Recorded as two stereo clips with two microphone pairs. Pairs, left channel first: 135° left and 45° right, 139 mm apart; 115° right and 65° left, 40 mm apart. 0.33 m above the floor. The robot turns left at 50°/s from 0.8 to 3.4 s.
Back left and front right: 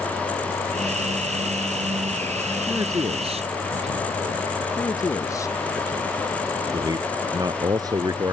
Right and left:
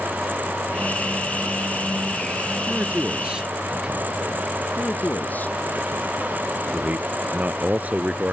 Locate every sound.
2.7 s a man speaking: 30° left; by 4.7 s 5° right
4.8 s a man speaking: 160° right
6.7 s a man speaking: 15° left